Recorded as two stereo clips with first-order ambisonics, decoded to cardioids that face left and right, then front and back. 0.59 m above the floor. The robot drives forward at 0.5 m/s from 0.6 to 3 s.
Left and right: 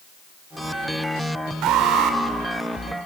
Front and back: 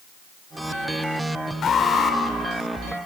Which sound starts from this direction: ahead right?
An alarm, at 1.6 s.